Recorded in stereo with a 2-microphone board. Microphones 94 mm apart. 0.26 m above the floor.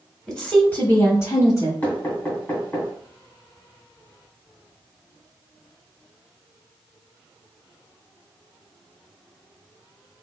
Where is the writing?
No writing in this recording.